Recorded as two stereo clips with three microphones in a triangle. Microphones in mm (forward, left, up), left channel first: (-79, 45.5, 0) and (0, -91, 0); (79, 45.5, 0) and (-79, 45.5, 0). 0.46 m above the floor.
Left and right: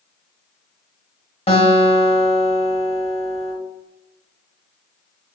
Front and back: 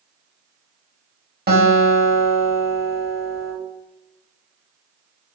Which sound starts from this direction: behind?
A guitar, at 1.5 s.